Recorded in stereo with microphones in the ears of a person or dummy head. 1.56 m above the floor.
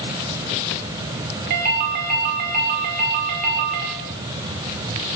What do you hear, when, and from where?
1.5 s a ringtone: 55° right (ahead or behind), 2.5 m